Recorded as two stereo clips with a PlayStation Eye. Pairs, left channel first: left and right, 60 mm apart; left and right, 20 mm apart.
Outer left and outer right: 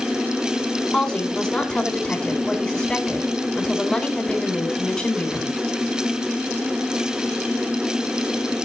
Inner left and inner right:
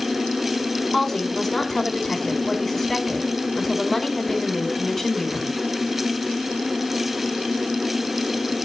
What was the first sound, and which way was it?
A woman speaking, 10° left (ahead or behind).